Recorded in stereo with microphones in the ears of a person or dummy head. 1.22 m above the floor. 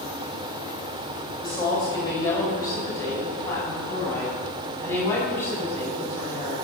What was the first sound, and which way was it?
A woman speaking, 30° left (ahead or behind).